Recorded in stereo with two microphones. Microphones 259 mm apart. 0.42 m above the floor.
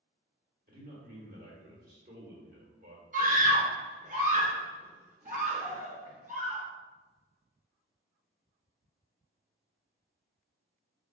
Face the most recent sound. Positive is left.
turn(degrees=-30)  # may be behind; listen again after turning